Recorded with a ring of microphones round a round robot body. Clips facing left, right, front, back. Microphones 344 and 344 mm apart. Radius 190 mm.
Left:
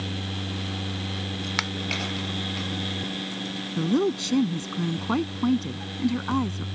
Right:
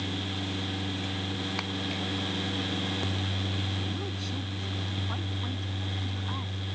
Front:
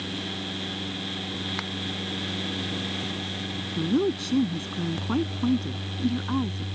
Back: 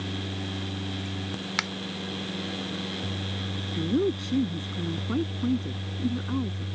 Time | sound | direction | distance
1.6 | a finger snap | 140° left | ?
3.8 | a woman speaking | 80° left | ?